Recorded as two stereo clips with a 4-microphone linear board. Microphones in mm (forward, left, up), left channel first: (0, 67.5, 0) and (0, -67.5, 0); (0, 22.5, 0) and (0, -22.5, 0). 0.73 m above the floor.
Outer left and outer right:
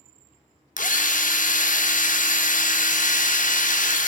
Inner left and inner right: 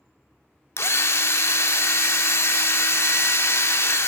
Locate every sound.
0.8 s a drill: 75° left (ahead or behind), 0.9 m